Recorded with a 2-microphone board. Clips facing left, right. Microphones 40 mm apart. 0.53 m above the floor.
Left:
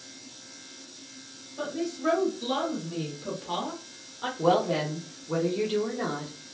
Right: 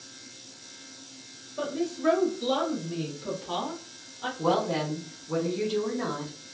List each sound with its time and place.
1.6 s a woman speaking: 25° right (ahead or behind), 1.2 m; by 4.3 s 20° left (ahead or behind), 1.1 m
4.4 s a woman speaking: 25° left (ahead or behind), 0.9 m